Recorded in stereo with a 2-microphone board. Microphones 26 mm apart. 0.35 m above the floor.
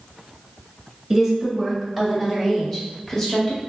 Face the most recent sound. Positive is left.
turn(degrees=30)  # may be behind; listen again after turning